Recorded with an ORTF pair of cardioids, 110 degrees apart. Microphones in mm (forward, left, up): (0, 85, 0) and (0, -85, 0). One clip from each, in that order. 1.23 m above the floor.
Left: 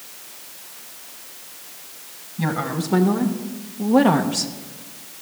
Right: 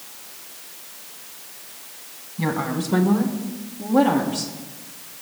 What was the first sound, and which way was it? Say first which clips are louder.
A woman speaking: even; 10° left.